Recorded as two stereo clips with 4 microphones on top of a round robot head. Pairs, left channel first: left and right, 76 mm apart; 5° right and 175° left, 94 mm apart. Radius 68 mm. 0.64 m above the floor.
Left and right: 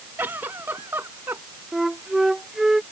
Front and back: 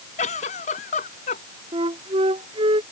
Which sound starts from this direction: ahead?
A giggle, at 0.2 s.